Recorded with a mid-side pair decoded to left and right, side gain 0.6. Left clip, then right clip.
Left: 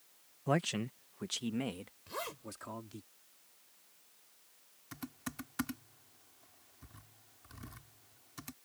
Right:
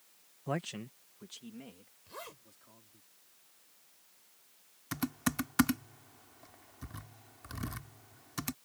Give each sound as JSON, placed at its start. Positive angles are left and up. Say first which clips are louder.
{"t": 0.5, "sound": "a man speaking", "louder": "left 4 dB", "azimuth_deg": 20}
{"t": 2.1, "sound": "a zipper", "louder": "left 5 dB", "azimuth_deg": 35}
{"t": 4.9, "sound": "typing on a keyboard", "louder": "right 10 dB", "azimuth_deg": -50}